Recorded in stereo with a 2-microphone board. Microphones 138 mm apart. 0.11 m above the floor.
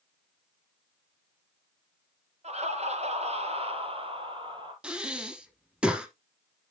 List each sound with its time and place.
2.4 s laughter: 55° right (ahead or behind), 1.9 m; by 4.7 s 35° right (ahead or behind), 2.5 m
4.8 s breathing: 5° right (ahead or behind), 1.3 m